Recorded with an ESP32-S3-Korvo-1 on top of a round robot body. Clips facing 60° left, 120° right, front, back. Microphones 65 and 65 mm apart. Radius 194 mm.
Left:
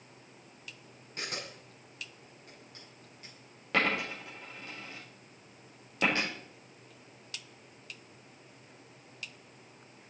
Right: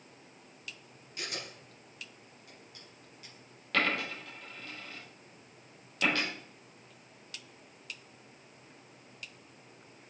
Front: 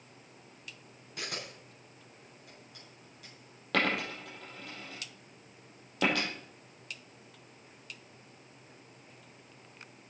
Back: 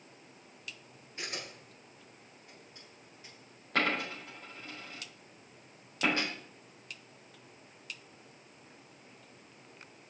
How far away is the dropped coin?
About 4 m.